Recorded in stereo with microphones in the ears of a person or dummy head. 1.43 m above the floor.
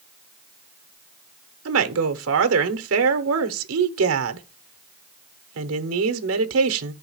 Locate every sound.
1.6 s a woman speaking: 75° right (ahead or behind), 0.9 m